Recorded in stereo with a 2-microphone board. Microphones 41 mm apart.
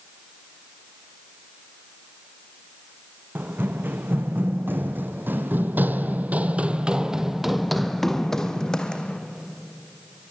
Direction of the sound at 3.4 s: 55° right (ahead or behind).